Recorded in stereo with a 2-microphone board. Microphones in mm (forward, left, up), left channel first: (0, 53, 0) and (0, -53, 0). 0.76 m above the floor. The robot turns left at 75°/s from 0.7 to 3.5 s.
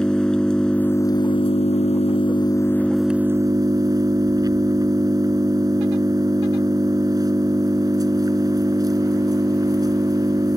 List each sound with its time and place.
0.0 s an engine running: 170° left; by 10.6 s 40° right